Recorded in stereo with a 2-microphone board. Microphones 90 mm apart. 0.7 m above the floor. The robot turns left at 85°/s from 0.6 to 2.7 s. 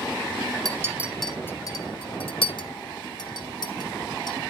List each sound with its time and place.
0.7 s a clink: 45° right (ahead or behind), 1.4 m; by 4.4 s 50° left (ahead or behind), 1.4 m